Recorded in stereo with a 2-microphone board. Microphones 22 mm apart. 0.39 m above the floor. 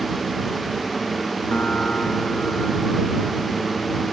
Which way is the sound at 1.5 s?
90° left.